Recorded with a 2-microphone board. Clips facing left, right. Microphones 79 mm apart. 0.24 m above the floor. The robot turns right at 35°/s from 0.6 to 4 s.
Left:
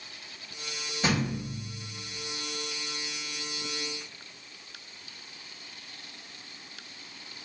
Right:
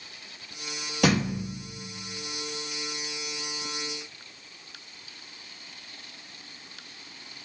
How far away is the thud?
About 1.6 m.